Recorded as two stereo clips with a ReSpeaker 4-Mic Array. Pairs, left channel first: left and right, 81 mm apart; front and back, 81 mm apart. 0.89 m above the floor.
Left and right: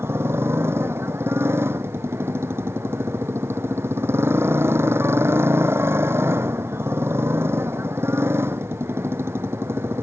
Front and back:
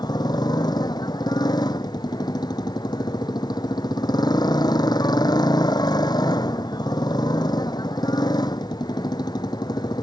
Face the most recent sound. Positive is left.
turn(degrees=-30)